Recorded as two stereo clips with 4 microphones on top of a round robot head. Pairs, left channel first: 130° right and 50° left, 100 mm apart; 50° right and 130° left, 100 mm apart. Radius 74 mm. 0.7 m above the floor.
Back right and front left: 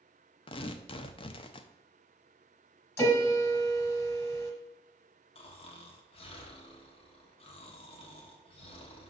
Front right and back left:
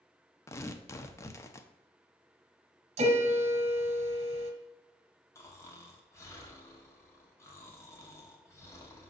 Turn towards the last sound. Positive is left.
turn(degrees=-110)